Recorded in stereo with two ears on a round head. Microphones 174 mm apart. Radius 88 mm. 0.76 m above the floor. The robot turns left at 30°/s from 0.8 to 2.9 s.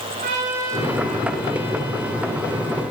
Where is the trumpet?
40° right, 8 m; by 2.8 s 100° right, 8 m.